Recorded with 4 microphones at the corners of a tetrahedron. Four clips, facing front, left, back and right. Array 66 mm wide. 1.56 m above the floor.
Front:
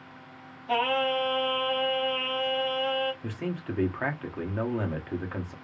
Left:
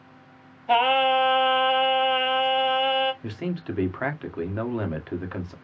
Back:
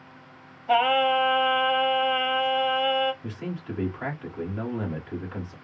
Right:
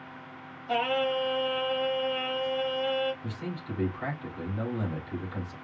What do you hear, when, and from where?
0.7 s singing: 115° left, 0.9 m
3.2 s a man speaking: 65° left, 1.5 m